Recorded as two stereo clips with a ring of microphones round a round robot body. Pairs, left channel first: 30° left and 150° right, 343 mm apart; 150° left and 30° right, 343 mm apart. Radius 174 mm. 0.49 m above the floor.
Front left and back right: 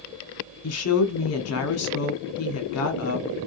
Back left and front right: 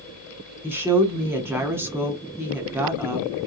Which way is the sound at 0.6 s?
50° left.